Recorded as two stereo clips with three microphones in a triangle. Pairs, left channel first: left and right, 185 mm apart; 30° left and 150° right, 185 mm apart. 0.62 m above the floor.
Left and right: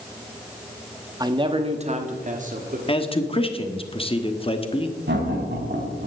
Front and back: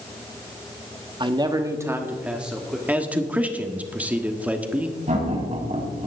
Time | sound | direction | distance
1.2 | a man speaking | 130° right | 1.1 m
2.9 | a man speaking | 130° left | 1.4 m
5.1 | laughter | 100° right | 5.5 m